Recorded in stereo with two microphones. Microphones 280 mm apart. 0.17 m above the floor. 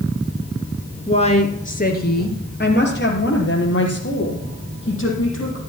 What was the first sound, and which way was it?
A woman speaking, 20° left (ahead or behind).